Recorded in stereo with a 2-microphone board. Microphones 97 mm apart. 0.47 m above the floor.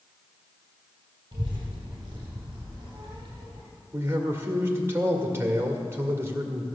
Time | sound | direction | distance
1.3 | a child speaking | 50° right (ahead or behind) | 2.5 m
3.9 | a man speaking | 25° right (ahead or behind) | 1.7 m